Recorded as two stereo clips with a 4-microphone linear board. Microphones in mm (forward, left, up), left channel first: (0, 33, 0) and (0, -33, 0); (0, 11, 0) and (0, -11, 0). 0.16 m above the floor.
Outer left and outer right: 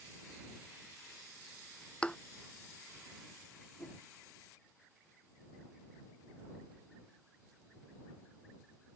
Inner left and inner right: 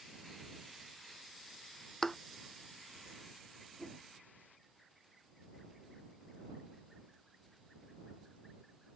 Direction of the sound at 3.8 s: 50° left (ahead or behind).